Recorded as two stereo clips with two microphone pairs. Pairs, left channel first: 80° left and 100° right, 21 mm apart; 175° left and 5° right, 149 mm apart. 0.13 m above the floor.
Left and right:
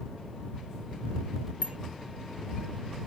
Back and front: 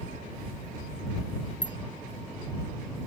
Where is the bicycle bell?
125° right.